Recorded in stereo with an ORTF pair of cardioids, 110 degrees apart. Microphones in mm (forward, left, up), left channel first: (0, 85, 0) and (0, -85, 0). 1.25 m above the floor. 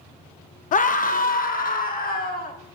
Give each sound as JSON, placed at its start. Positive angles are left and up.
{"t": 0.7, "sound": "a scream", "azimuth_deg": 55, "distance_m": 0.8}